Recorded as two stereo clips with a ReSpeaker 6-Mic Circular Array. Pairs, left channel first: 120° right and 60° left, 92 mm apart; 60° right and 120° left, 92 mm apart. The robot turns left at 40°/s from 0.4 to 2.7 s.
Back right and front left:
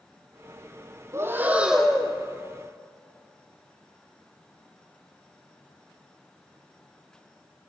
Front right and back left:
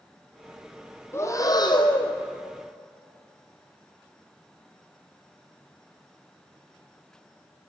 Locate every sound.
1.1 s breathing: straight ahead, 1.4 m; by 2.1 s 40° right, 1.4 m